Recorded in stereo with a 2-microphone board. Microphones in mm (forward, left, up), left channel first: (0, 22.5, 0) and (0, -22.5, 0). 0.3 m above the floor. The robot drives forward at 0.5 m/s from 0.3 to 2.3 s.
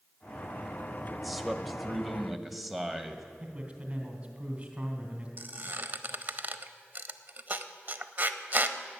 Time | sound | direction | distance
1.1 | a man speaking | 5° right (ahead or behind) | 0.9 m
3.4 | a man speaking | 25° right (ahead or behind) | 2.5 m
5.4 | a squeak | 45° right (ahead or behind) | 0.7 m